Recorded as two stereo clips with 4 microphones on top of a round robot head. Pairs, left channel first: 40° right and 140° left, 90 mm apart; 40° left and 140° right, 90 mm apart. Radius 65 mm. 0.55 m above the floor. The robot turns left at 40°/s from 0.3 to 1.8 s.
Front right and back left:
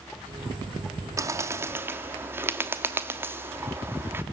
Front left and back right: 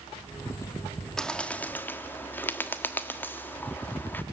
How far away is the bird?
About 1.2 m.